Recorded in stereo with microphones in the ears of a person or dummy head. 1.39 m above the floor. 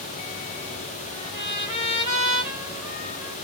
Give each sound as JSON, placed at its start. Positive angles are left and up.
{"t": 1.1, "sound": "a trumpet", "side_deg": 30, "distance_m": 3.0}